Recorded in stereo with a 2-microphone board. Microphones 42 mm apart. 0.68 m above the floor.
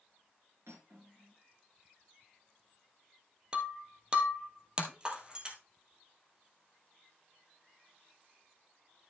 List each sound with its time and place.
0.7 s cutlery clinking: 85° right, 5 m
3.5 s breaking glass: 20° right (ahead or behind), 2 m